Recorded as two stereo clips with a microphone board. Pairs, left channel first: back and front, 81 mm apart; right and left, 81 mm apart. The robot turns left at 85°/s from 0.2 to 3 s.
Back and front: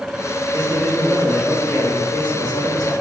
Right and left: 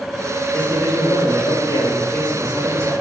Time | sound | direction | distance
0.5 | a man speaking | 20° right | 4.5 m